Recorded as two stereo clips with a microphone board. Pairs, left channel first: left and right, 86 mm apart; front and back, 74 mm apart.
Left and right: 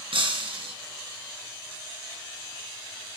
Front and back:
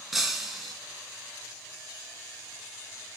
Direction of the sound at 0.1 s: 90° right.